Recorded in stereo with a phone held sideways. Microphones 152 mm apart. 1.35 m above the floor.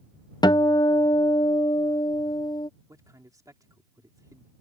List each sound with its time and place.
0.4 s a guitar: 30° left (ahead or behind)
2.9 s a man speaking: 25° right (ahead or behind)